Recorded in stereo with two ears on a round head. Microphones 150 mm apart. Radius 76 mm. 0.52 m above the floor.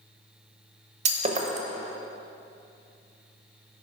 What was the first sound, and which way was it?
Breaking glass, 40° right (ahead or behind).